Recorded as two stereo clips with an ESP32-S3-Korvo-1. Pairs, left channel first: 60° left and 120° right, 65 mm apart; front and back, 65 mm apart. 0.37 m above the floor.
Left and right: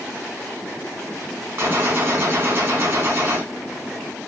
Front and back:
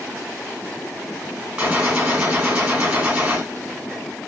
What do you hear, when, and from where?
1.6 s a gunshot: 130° right, 1.5 m